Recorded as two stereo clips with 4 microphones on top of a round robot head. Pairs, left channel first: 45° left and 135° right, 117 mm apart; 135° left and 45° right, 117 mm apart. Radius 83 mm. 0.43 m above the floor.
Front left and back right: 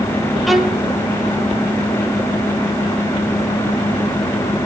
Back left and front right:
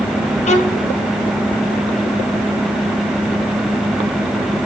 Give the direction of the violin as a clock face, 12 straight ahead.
8 o'clock.